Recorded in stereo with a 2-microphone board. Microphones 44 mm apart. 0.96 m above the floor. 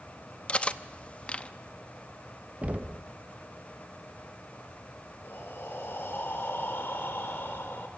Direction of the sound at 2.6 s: 35° right (ahead or behind).